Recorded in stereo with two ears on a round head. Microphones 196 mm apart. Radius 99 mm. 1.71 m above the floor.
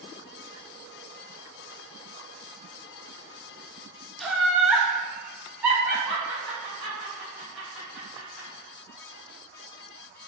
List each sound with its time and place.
4.2 s laughter: centre (ahead or behind), 0.9 m; by 8.5 s 5° right (ahead or behind), 2.5 m